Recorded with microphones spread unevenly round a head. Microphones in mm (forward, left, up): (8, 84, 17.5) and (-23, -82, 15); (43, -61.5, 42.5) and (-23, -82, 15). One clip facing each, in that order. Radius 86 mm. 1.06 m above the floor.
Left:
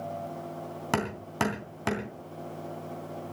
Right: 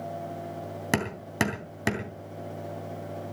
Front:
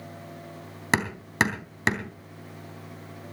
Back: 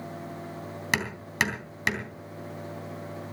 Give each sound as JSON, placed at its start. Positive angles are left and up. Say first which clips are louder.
{"t": 0.9, "sound": "hammering", "louder": "right 1 dB, front 4 dB", "azimuth_deg": -30, "distance_m": 3.0}